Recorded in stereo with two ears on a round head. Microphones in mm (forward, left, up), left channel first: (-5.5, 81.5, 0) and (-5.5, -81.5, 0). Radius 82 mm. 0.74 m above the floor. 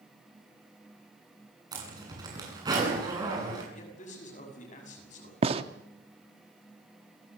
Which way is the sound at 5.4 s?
30° right (ahead or behind).